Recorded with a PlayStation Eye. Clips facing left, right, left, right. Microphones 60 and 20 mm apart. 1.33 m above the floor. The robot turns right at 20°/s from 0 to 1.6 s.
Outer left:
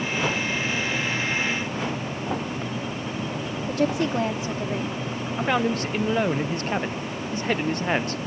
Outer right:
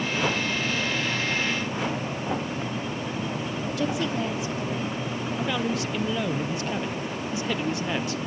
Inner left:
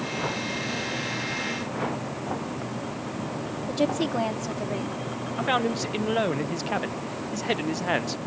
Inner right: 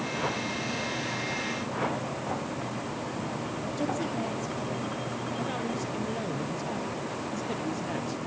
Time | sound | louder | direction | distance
3.7 | a woman speaking | outer left 5 dB, inner left 7 dB | 40° left (ahead or behind) | 2 m
5.4 | a man speaking | outer left 5 dB, inner left 10 dB | 45° left (ahead or behind) | 0.5 m